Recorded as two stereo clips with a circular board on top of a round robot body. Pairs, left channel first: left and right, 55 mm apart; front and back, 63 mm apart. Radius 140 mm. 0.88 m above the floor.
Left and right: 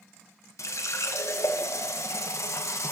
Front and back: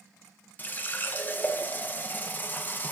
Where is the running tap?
60° left, 0.6 m.